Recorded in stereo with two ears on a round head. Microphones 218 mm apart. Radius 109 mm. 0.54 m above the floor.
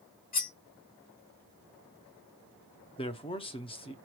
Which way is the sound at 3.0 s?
25° left (ahead or behind).